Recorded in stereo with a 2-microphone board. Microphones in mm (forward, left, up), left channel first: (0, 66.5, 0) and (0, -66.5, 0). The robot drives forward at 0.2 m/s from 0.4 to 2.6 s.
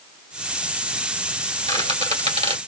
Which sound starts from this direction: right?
A squeak, at 1.7 s.